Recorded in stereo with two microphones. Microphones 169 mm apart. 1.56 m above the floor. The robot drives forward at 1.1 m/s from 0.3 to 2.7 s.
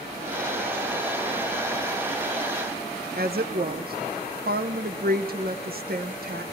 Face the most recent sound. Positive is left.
turn(degrees=-65)  # may be behind; listen again after turning